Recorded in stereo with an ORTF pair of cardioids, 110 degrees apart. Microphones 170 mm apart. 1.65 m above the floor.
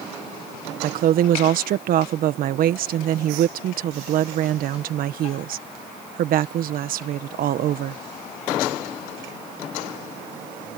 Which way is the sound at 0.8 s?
65° right.